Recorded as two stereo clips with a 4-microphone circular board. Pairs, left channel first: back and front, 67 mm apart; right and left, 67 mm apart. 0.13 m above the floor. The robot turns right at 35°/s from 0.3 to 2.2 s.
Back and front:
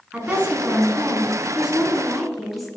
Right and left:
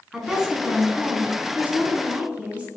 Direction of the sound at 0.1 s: 20° left.